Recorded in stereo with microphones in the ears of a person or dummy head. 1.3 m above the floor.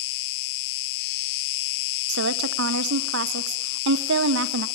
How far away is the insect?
About 1.4 m.